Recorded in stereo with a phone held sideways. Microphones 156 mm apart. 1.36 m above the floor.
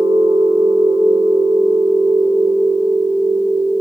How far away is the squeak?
No squeak in this recording.